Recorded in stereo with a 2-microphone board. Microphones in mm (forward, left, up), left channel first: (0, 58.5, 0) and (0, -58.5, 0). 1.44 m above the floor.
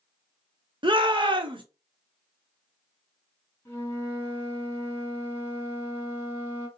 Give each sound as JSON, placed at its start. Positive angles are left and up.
{"t": 0.8, "sound": "a shout", "side_deg": -45, "distance_m": 1.1}
{"t": 3.6, "sound": "a flute", "side_deg": 25, "distance_m": 2.5}